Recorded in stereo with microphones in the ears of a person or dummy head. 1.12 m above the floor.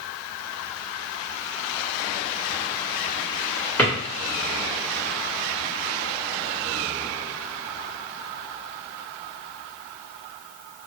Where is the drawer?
10° left (ahead or behind), 1.7 m.